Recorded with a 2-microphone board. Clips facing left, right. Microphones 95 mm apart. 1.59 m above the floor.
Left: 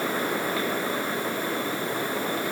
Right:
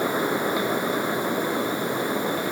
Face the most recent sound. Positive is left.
No sound to turn to.